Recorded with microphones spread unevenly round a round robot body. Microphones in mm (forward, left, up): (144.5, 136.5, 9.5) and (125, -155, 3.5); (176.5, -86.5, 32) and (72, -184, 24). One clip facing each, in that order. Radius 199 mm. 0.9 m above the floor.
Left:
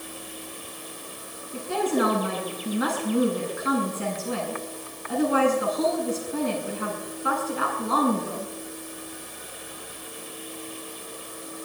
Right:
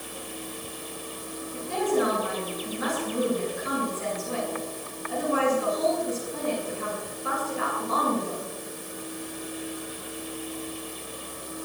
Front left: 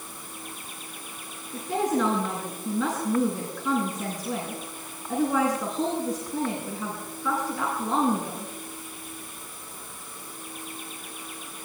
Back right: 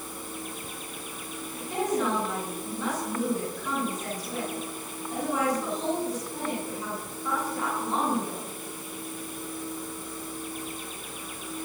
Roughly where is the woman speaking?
Left.